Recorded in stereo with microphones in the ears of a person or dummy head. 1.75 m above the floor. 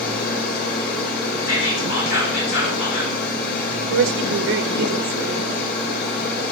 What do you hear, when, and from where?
0.0 s a machine running: 55° left (ahead or behind), 2.5 m
1.5 s whispering: 70° left (ahead or behind), 5 m
3.9 s a woman speaking: 70° right (ahead or behind), 0.6 m